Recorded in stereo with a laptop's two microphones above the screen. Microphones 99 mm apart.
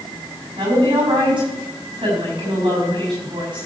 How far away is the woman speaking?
About 6 m.